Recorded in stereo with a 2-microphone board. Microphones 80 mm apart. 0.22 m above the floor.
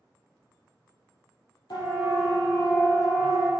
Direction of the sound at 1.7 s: 65° left (ahead or behind).